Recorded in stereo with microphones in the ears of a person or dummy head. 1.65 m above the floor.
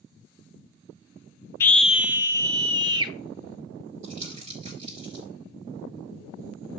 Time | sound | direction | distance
1.6 | a scream | 10° left (ahead or behind) | 0.5 m
4.0 | crumpling | 40° right (ahead or behind) | 6.5 m